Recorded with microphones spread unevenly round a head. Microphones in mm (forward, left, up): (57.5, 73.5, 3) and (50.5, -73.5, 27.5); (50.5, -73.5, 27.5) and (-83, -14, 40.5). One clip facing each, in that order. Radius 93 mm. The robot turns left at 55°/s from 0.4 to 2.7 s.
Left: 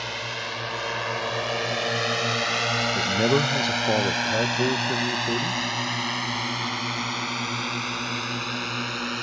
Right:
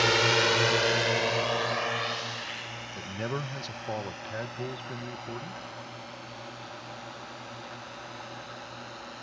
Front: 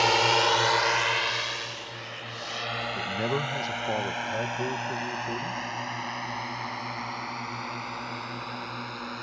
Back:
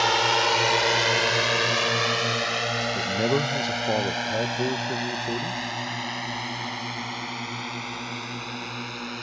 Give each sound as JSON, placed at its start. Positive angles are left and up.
{"t": 0.0, "sound": "a drone", "azimuth_deg": -110}
{"t": 3.0, "sound": "a man speaking", "azimuth_deg": 90}